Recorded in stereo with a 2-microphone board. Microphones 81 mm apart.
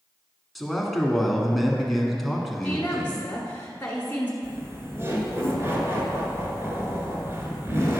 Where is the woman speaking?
20° left (ahead or behind), 1.2 m.